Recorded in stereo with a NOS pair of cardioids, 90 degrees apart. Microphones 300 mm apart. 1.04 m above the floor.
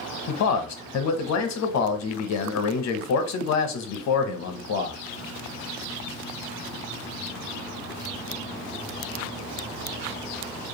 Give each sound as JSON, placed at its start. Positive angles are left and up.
{"t": 0.3, "sound": "a man speaking", "azimuth_deg": 60, "distance_m": 0.7}